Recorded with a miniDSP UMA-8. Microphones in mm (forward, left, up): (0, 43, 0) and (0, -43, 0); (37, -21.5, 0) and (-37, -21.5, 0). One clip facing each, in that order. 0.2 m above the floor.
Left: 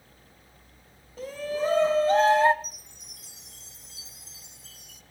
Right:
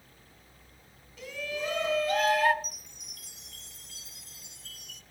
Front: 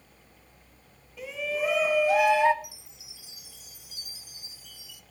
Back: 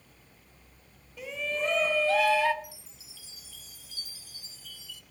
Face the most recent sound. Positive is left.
turn(degrees=-70)